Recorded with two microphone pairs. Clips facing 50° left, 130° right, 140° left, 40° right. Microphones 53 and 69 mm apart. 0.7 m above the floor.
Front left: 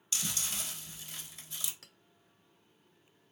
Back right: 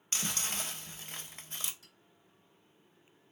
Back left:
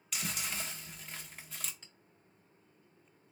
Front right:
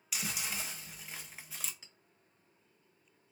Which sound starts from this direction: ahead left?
A clink, at 1.8 s.